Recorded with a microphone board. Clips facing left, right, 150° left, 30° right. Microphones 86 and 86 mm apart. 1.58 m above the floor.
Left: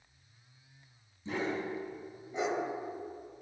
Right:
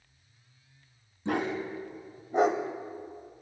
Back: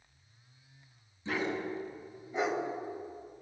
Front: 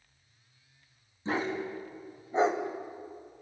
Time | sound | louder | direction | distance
1.2 | a dog barking | right 4 dB, front 2 dB | 80° right | 3.5 m